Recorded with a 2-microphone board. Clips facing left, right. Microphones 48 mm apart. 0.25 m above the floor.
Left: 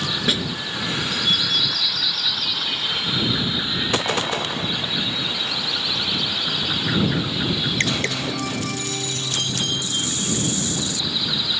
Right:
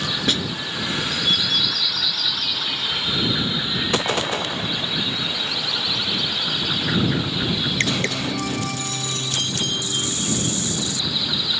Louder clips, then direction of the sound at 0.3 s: Even; 5° left (ahead or behind).